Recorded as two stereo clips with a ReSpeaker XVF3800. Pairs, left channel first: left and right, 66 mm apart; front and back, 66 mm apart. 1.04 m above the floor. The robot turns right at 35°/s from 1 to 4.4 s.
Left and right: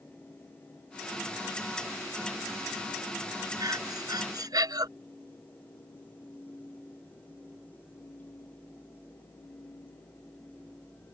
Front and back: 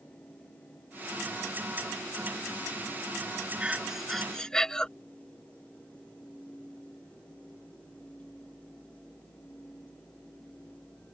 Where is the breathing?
110° right; by 4.9 s 80° right.